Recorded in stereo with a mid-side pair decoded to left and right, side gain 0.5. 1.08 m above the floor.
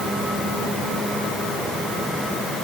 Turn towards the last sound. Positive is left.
No sound to turn to.